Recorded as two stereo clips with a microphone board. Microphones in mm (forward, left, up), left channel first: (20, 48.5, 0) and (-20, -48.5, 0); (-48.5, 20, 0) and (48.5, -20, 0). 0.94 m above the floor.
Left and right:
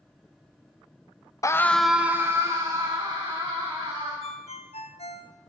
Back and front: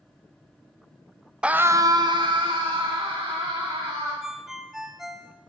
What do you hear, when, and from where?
1.4 s a scream: 50° left, 0.8 m; by 4.1 s 65° right, 3 m
4.2 s a ringtone: 65° left, 0.9 m